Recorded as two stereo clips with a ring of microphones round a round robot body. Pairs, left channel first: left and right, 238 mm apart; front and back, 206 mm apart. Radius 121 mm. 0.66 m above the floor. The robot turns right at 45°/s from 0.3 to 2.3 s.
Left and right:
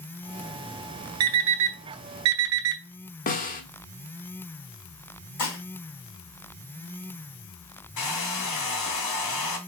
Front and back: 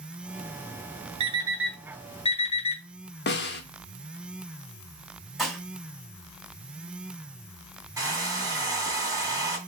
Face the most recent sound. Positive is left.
turn(degrees=105)